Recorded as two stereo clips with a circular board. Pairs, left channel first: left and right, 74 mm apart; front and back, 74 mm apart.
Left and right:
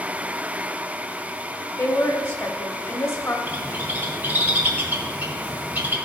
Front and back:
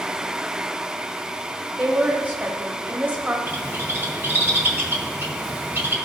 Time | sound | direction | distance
1.8 | a woman speaking | 125° left | 1.3 m
3.5 | a bird | 140° right | 1.7 m